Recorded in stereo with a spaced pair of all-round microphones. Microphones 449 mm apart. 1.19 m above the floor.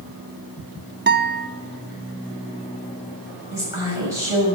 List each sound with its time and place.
1.1 s a guitar: 25° right (ahead or behind), 0.8 m
3.5 s a woman speaking: 80° left, 6 m